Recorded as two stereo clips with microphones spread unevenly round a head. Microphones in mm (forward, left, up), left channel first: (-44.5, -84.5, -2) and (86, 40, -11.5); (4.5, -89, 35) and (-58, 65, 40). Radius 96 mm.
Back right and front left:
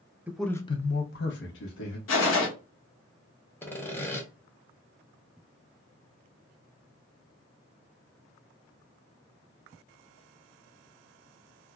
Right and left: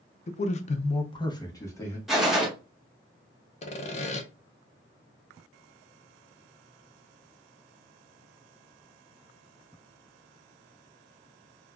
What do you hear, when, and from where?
0.3 s a man speaking: 35° right, 0.6 m; by 2.0 s 145° right, 1.1 m
2.1 s a gunshot: 160° right, 0.8 m
3.6 s sawing: 60° right, 0.6 m